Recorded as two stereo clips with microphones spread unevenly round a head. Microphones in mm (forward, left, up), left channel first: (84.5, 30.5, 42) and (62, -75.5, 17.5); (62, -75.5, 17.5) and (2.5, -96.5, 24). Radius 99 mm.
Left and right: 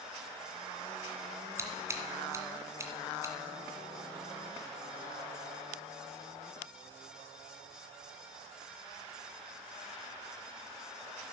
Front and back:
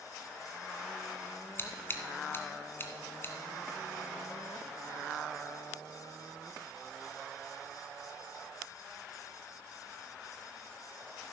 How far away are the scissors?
About 2.0 m.